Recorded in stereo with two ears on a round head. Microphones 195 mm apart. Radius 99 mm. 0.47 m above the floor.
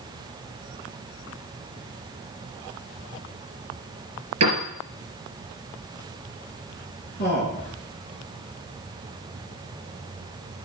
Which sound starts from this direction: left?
A man speaking, at 7.2 s.